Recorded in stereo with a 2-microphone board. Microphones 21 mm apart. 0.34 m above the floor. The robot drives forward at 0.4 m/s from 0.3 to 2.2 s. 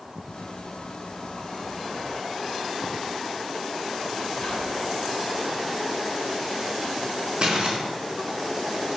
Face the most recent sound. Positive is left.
turn(degrees=-40)  # may be behind; listen again after turning